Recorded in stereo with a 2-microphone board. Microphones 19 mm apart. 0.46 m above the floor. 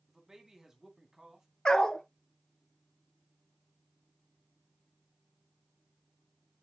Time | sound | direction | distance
0.1 | a man speaking | 25° right (ahead or behind) | 3 m
1.6 | a dog barking | 45° left (ahead or behind) | 1.0 m